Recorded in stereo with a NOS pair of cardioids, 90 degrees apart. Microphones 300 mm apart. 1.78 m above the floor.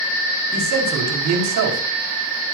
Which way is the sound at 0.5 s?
65° right.